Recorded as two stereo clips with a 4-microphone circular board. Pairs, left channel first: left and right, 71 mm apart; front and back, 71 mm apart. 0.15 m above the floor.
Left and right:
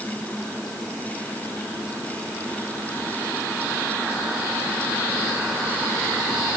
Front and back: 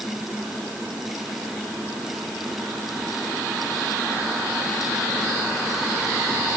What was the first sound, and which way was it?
Only background noise.